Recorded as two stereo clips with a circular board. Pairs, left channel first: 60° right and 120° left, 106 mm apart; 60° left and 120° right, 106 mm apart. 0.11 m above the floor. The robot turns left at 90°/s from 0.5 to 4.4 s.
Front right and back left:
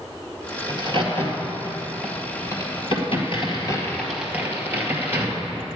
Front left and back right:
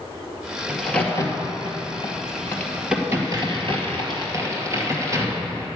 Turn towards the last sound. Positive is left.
turn(degrees=-175)